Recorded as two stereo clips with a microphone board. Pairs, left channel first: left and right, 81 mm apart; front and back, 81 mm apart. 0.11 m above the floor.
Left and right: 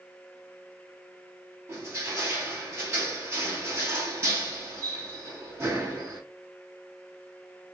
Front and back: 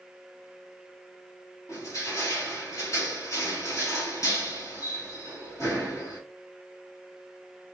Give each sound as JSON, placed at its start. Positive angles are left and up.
{"t": 1.7, "sound": "crushing", "azimuth_deg": -35, "distance_m": 1.9}